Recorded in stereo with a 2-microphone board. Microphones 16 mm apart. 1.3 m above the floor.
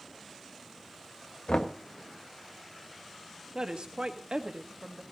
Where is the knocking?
75° left (ahead or behind), 1.2 m.